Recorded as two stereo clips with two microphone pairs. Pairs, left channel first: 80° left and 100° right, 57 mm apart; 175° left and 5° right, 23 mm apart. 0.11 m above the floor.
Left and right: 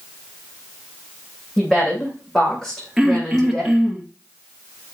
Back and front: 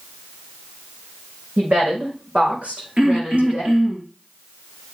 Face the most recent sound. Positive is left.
turn(degrees=-15)